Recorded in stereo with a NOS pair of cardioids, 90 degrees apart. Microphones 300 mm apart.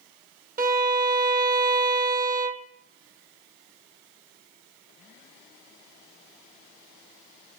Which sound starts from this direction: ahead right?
A violin, at 0.6 s.